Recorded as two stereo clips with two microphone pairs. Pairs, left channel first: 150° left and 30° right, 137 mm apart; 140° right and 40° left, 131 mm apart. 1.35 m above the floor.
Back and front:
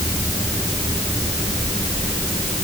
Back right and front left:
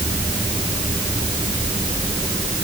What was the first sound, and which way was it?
Only background noise.